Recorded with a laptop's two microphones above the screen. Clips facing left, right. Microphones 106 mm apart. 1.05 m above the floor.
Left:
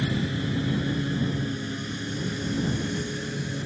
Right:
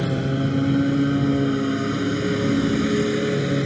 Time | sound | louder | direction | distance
0.0 | a lawn mower | right 5 dB | 50° right (ahead or behind) | ?